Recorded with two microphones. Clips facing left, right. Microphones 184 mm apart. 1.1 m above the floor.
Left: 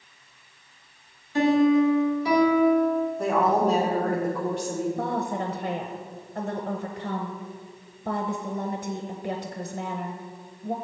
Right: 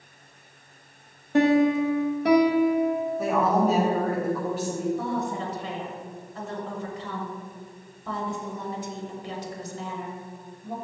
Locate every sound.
1.3 s a piano: 60° right (ahead or behind), 0.9 m
3.2 s a woman speaking: 5° right (ahead or behind), 1.9 m
5.0 s a woman speaking: 45° left (ahead or behind), 0.6 m